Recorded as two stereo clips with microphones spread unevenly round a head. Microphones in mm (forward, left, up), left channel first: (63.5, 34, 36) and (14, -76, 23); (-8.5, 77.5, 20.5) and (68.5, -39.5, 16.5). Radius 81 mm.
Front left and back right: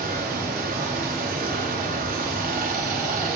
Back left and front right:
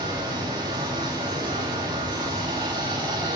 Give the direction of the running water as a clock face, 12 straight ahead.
4 o'clock.